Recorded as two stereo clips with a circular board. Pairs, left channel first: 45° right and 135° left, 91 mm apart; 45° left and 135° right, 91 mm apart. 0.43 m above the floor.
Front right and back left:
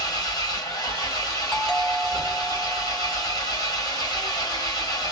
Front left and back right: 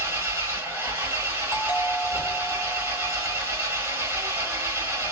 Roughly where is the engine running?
Right.